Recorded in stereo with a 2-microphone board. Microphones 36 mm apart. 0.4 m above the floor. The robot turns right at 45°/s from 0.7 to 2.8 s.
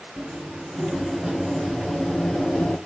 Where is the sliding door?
35° right, 5.5 m; by 2.8 s 55° left, 5.5 m.